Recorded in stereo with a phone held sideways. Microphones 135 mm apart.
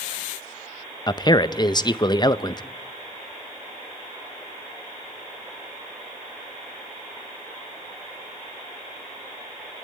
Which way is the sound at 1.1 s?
30° left (ahead or behind).